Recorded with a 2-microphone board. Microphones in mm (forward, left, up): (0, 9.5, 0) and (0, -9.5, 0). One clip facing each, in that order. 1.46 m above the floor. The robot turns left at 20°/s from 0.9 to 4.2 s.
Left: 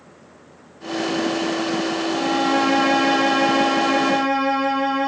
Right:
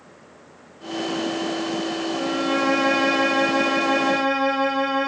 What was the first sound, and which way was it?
A violin, 60° left.